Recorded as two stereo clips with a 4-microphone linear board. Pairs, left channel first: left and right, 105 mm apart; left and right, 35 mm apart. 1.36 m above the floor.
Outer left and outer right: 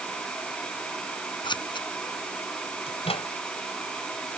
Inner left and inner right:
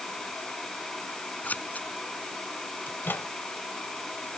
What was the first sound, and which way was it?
Scissors, 50° left (ahead or behind).